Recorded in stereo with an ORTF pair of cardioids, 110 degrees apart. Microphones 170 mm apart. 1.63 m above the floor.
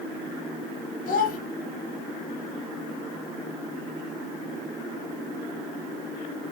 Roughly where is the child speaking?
Ahead left.